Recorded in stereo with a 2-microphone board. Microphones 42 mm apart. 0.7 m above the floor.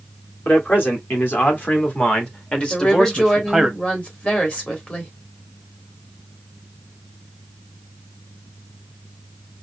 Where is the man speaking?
55° left (ahead or behind), 2 m; by 3.7 s 5° right (ahead or behind), 1.0 m.